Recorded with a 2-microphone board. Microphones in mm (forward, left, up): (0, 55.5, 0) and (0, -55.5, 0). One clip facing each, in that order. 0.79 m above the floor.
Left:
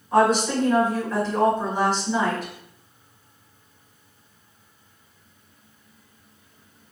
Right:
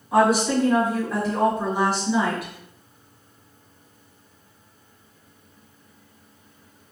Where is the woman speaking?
10° right (ahead or behind), 1.6 m.